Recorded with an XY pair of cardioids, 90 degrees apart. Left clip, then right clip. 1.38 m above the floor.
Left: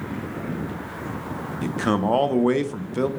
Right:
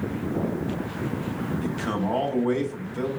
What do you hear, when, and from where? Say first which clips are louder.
1.6 s a man speaking: left 7 dB; 60° left, 0.5 m